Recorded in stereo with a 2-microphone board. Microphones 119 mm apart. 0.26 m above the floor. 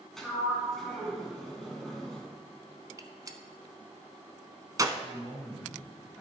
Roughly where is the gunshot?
Right.